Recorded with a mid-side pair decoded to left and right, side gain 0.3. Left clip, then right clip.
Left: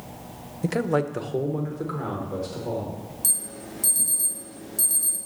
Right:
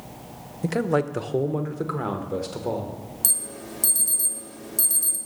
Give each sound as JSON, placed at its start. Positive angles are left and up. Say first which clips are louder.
{"t": 0.6, "sound": "a man speaking", "louder": "right 1 dB", "azimuth_deg": 0, "distance_m": 0.6}
{"t": 3.2, "sound": "an alarm", "louder": "right 1 dB", "azimuth_deg": -70, "distance_m": 1.6}